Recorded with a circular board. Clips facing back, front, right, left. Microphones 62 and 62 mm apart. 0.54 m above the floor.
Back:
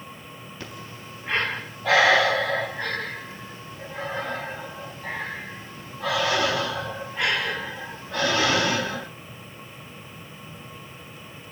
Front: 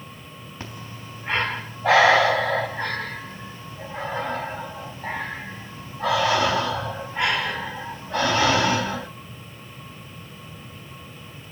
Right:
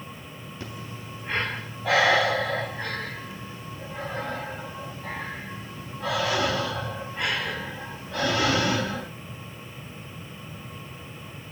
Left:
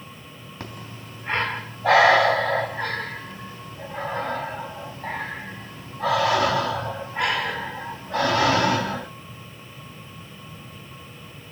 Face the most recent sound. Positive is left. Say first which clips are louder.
# front 2 dB, left 1 dB
turn(degrees=60)